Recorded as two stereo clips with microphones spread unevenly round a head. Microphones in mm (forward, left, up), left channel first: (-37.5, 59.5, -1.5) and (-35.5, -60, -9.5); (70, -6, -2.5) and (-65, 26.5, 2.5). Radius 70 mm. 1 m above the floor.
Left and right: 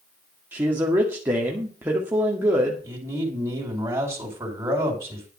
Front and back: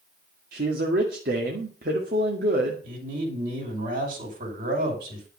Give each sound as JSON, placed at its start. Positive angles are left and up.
{"t": 0.5, "sound": "a man speaking", "azimuth_deg": -165, "distance_m": 2.0}
{"t": 2.8, "sound": "a man speaking", "azimuth_deg": -160, "distance_m": 4.5}